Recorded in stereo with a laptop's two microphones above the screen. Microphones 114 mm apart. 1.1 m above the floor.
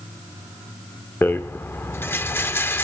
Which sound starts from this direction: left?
A rattle, at 1.2 s.